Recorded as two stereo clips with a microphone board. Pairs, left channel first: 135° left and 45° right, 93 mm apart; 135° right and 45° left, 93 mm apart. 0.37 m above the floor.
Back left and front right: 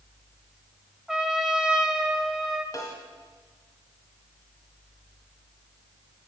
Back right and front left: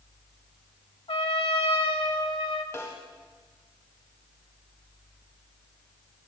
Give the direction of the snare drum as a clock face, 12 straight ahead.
6 o'clock.